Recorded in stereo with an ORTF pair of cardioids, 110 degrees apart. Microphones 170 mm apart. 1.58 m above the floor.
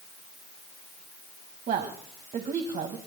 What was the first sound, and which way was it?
A woman speaking, 50° right.